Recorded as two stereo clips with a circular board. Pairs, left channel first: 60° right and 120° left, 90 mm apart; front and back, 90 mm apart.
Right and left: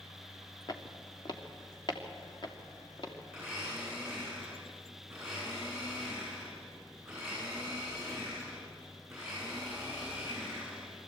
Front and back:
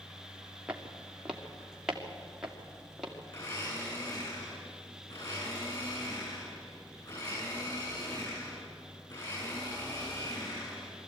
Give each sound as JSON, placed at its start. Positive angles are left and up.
{"t": 0.7, "sound": "footsteps", "azimuth_deg": -100, "distance_m": 2.5}
{"t": 3.3, "sound": "a blender", "azimuth_deg": 40, "distance_m": 10.0}